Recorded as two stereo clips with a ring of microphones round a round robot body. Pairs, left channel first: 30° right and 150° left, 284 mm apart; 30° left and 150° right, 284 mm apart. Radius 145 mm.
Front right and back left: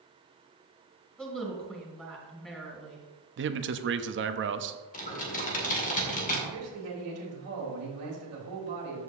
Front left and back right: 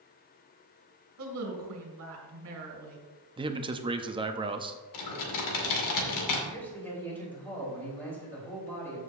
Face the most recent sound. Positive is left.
turn(degrees=115)